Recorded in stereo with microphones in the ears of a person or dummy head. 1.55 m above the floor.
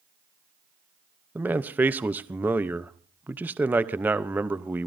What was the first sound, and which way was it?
A man speaking, 10° right (ahead or behind).